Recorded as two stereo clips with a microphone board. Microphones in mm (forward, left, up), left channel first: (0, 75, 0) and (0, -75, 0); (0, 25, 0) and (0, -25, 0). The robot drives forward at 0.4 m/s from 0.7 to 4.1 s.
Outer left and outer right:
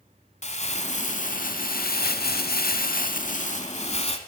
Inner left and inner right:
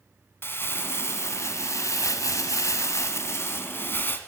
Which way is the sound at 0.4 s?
45° left (ahead or behind).